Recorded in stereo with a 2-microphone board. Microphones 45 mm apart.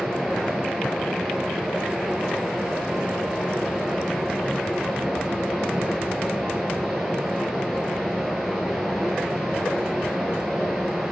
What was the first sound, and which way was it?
Running water, 15° right (ahead or behind).